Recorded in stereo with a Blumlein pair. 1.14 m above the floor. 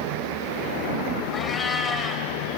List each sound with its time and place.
1.3 s a cat meowing: 15° left, 2 m